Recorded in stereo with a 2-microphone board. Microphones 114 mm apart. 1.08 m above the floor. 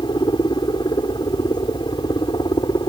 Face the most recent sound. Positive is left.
turn(degrees=40)  # may be behind; listen again after turning